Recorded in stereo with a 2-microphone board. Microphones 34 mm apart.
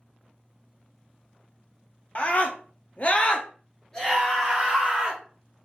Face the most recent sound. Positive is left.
turn(degrees=0)  # may be behind; listen again after turning